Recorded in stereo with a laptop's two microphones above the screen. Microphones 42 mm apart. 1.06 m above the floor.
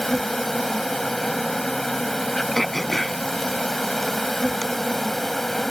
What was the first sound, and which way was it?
An insect, 5° left (ahead or behind).